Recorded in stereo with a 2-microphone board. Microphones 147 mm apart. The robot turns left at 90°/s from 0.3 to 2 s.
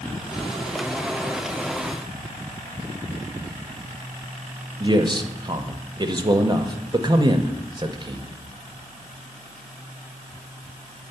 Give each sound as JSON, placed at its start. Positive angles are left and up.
{"t": 4.8, "sound": "a man speaking", "side_deg": -30, "distance_m": 0.5}